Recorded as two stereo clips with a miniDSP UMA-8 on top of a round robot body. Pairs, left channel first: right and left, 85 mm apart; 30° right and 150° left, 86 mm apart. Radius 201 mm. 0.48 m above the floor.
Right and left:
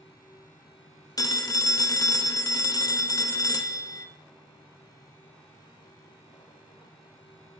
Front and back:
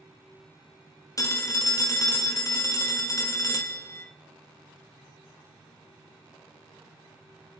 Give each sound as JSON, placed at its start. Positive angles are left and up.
{"t": 1.2, "sound": "a phone ringing", "azimuth_deg": -65, "distance_m": 0.5}